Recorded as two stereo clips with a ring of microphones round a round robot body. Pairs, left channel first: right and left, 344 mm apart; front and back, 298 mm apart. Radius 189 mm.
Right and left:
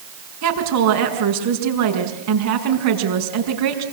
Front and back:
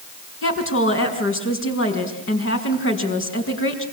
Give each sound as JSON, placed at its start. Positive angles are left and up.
{"t": 0.4, "sound": "a woman speaking", "azimuth_deg": 45, "distance_m": 6.0}